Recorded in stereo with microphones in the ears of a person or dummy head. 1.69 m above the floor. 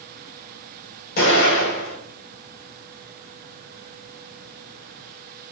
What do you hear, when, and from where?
1.2 s an explosion: 50° left (ahead or behind), 6 m